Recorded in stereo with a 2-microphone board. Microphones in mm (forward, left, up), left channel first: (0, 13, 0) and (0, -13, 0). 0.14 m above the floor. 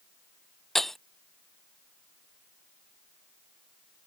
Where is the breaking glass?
5° left (ahead or behind).